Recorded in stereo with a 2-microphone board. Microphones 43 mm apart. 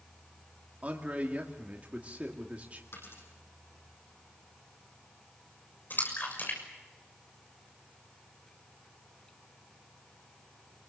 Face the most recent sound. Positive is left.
turn(degrees=50)  # may be behind; listen again after turning